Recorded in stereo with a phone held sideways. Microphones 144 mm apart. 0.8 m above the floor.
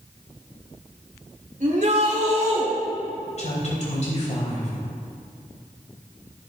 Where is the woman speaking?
55° left (ahead or behind), 3.5 m.